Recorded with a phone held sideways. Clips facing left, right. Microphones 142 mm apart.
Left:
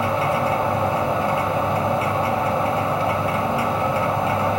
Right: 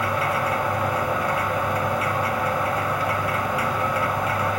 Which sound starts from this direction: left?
A machine running, at 0.0 s.